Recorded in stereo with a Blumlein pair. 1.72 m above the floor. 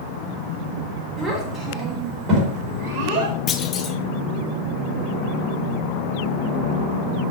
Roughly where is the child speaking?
Ahead.